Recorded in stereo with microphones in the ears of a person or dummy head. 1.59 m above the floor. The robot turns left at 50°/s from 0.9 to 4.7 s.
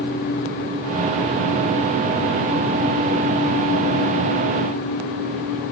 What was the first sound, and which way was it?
Only background noise.